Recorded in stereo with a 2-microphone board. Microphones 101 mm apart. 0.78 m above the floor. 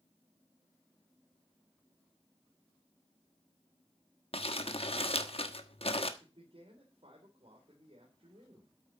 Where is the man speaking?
60° right (ahead or behind), 3 m.